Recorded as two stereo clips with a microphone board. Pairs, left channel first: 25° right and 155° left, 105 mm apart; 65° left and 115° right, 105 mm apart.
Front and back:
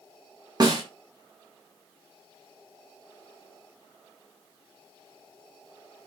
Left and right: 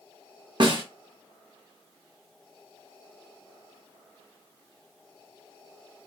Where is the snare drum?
155° right, 1.1 m.